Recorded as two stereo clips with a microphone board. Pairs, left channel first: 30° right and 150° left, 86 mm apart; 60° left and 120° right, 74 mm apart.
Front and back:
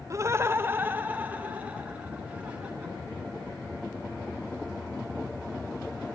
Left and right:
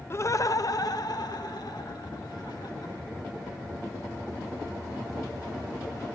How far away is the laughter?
About 0.6 m.